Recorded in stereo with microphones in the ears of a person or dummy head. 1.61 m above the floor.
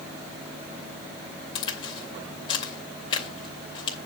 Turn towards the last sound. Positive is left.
turn(degrees=30)  # may be behind; listen again after turning